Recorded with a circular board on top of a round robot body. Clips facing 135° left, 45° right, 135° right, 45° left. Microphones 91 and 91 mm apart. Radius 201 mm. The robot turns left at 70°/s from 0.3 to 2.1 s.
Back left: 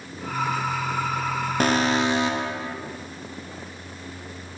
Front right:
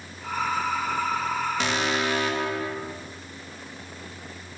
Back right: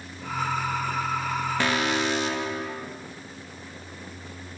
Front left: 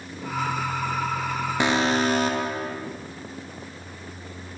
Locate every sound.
1.6 s an alarm: 110° left, 0.8 m; by 2.8 s 75° left, 0.8 m